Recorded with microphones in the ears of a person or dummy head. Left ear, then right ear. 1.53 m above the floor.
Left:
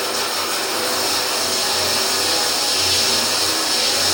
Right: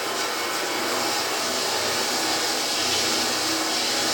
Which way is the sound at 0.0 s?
35° left (ahead or behind).